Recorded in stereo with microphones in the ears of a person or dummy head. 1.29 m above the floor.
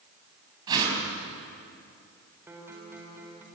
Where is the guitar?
10° right (ahead or behind), 4 m.